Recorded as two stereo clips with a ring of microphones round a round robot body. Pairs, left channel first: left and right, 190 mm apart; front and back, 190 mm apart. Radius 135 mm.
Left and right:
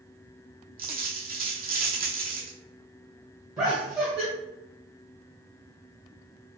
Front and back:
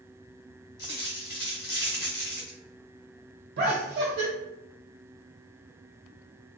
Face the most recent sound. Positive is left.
turn(degrees=180)